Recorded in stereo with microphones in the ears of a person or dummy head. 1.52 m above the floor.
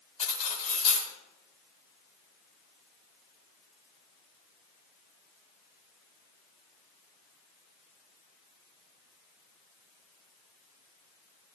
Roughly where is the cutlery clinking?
Left.